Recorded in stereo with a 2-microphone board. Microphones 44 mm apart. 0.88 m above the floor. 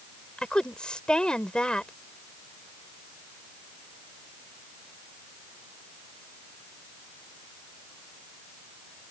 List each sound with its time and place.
0.4 s a woman speaking: 20° left (ahead or behind)